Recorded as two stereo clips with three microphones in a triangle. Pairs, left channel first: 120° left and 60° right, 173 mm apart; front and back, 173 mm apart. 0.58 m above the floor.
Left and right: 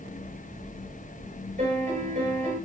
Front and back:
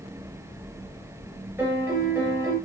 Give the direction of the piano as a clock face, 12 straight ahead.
3 o'clock.